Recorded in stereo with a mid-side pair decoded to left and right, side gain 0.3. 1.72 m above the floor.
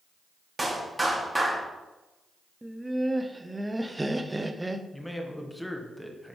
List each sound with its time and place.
0.6 s a clap: 15° right, 3 m
2.6 s laughter: 15° right, 1.0 m
4.9 s a man speaking: 10° left, 1.8 m